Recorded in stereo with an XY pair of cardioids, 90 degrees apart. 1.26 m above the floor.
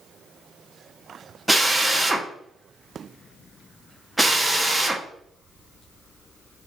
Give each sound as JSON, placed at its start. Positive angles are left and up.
{"t": 1.5, "sound": "a drill", "azimuth_deg": -10, "distance_m": 0.8}